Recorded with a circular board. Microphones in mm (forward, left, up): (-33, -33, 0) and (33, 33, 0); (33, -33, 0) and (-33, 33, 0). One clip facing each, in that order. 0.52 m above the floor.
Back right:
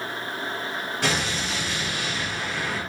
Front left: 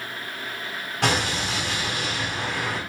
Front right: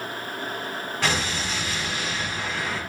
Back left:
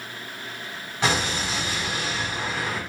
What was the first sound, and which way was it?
An explosion, 65° left.